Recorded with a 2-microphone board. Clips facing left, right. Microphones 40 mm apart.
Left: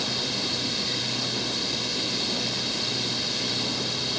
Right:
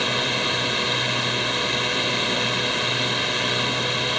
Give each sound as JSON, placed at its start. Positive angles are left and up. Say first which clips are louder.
{"t": 0.0, "sound": "a drone", "louder": "right 7 dB", "side_deg": -45}